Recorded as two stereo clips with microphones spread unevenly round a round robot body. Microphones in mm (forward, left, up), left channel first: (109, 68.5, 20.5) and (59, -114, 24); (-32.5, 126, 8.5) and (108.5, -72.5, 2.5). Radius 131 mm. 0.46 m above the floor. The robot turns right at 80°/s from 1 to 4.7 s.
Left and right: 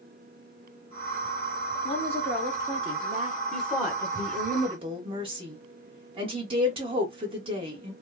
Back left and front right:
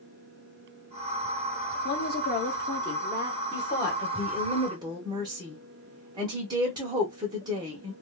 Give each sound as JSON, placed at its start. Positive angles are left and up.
{"t": 1.9, "sound": "a woman speaking", "azimuth_deg": 130, "distance_m": 0.8}
{"t": 3.5, "sound": "a woman speaking", "azimuth_deg": 165, "distance_m": 0.8}